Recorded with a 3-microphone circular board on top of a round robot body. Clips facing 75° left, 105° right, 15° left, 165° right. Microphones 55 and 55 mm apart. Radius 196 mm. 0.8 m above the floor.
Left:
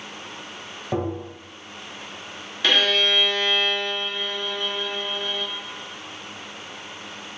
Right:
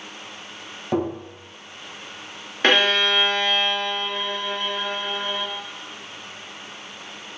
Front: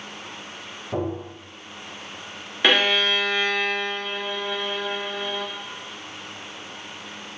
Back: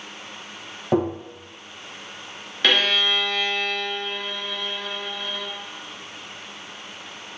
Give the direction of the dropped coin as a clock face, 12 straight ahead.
I don't hear a dropped coin.